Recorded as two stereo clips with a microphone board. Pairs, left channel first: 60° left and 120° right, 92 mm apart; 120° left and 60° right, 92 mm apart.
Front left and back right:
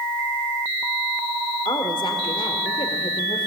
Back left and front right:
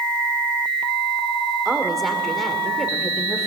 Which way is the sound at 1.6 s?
30° left.